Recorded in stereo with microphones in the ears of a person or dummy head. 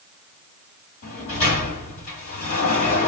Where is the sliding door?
45° left (ahead or behind), 2 m.